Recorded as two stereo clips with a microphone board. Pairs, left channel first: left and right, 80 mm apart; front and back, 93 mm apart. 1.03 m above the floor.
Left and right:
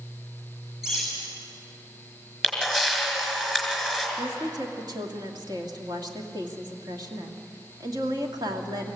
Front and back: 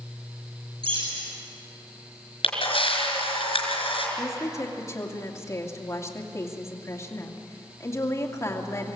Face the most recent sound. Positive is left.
turn(degrees=-60)